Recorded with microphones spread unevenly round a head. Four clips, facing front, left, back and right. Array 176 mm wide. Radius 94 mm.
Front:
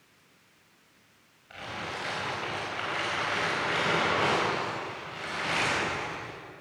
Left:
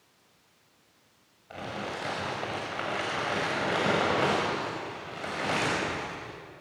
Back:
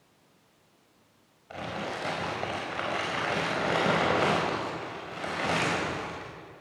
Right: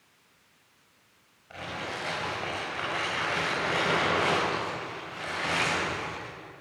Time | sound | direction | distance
1.5 | crumpling | 150° left | 5.5 m